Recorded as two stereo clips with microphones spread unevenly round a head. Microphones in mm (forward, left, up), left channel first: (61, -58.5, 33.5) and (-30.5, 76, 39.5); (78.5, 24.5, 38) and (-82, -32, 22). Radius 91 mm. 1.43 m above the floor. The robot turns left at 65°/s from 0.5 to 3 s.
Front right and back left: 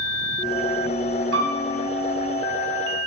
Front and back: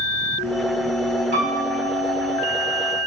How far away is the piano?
About 1.6 m.